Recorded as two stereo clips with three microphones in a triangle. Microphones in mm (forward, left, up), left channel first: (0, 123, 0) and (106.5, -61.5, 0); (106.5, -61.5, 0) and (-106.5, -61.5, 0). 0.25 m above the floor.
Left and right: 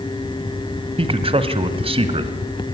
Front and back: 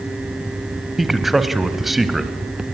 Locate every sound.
1.0 s a man speaking: 90° right, 1.3 m